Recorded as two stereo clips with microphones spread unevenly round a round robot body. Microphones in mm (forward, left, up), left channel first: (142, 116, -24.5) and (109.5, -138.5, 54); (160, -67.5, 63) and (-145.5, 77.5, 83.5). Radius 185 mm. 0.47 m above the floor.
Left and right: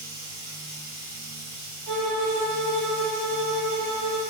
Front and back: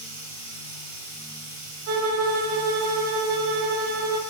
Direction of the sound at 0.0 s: 125° right.